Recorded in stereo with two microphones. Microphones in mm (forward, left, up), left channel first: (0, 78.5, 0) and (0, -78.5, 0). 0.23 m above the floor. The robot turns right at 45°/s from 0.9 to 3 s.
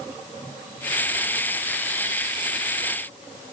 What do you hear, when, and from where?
Only background noise.